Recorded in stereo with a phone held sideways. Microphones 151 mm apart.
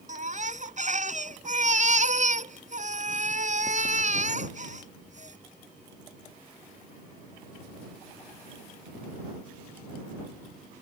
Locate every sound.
0.1 s a baby crying: 50° right (ahead or behind)